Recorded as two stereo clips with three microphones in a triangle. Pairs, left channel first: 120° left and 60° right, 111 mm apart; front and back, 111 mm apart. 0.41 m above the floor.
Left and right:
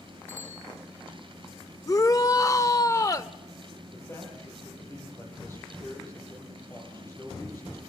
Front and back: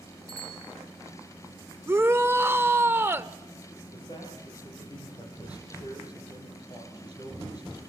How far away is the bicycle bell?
About 5.5 m.